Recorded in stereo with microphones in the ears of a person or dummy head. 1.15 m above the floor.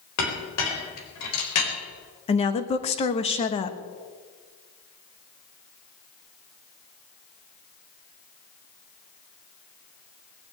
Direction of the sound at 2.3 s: 30° left (ahead or behind).